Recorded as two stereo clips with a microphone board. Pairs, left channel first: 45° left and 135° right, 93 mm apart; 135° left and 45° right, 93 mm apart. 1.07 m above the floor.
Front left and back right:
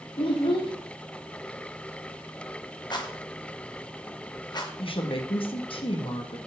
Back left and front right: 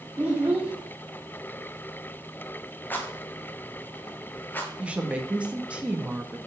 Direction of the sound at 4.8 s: 35° left.